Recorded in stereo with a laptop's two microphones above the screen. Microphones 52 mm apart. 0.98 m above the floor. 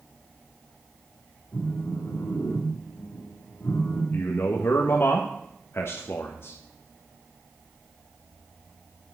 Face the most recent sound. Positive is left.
turn(degrees=50)  # may be behind; listen again after turning